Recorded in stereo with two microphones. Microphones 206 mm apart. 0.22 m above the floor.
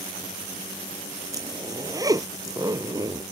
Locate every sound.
1.3 s a zipper: 20° right (ahead or behind)